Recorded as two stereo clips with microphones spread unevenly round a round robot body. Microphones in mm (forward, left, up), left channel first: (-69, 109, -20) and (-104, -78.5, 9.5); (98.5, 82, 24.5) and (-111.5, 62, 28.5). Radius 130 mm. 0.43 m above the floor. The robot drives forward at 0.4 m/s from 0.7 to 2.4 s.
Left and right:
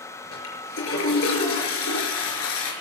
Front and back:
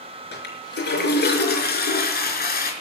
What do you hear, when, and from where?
0.3 s a toilet flushing: 45° left, 4.5 m; by 2.7 s 50° left, 4 m